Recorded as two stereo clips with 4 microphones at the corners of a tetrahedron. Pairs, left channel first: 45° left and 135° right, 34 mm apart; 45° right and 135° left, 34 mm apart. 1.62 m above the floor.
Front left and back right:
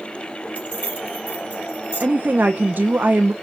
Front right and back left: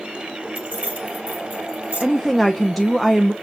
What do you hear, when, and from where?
0.6 s keys jangling: 95° left, 4.5 m
2.0 s a woman speaking: 130° right, 0.6 m